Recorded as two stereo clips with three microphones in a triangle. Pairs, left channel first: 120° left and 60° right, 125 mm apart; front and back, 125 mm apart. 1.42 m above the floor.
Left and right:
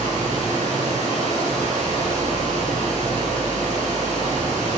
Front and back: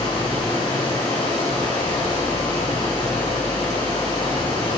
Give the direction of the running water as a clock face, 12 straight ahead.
2 o'clock.